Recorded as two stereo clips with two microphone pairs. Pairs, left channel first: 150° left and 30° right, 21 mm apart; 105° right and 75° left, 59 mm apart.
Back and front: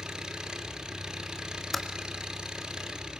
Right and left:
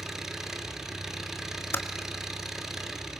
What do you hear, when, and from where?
0.0 s an engine running: 5° right, 2 m
1.7 s typing on a keyboard: 125° right, 1.5 m